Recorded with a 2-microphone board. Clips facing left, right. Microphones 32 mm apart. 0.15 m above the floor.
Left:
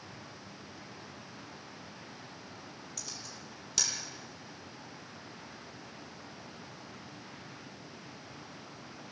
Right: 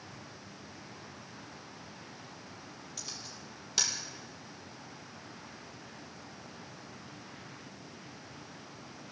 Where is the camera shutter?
15° right (ahead or behind), 4.5 m.